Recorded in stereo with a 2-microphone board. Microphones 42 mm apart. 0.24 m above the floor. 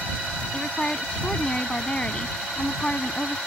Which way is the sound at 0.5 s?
25° left (ahead or behind).